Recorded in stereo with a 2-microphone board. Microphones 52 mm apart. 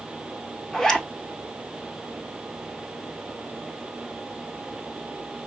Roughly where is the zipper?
Centre.